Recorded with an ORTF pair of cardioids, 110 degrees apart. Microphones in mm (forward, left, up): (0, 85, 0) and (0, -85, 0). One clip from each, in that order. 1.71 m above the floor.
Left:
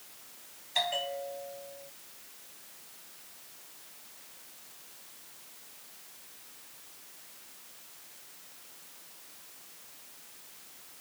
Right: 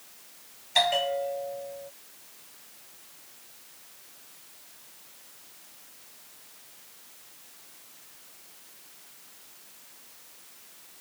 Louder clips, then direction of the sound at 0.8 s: Right 7 dB; 45° right.